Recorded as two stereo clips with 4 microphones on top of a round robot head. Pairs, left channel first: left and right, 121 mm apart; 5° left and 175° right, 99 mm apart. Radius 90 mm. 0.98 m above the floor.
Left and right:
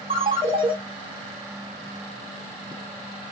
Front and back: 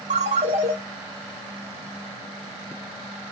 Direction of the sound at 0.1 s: 145° right.